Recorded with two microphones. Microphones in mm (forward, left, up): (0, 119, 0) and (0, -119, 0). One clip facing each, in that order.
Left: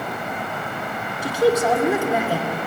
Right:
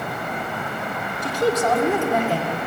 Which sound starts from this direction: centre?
A man speaking, at 1.2 s.